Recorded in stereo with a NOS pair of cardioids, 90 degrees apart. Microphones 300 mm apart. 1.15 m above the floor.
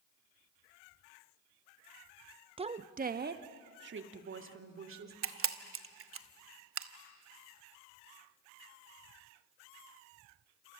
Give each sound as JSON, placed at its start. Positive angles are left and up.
{"t": 2.6, "sound": "a woman speaking", "azimuth_deg": -20, "distance_m": 0.9}
{"t": 5.2, "sound": "a camera shutter", "azimuth_deg": -45, "distance_m": 1.1}